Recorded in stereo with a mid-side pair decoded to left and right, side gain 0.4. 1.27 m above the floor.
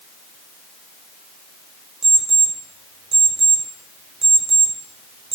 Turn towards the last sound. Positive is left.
turn(degrees=-60)